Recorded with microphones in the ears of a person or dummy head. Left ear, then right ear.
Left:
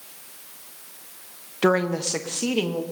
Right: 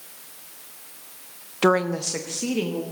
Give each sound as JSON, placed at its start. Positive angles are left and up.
{"t": 1.6, "sound": "a woman speaking", "side_deg": -15, "distance_m": 0.8}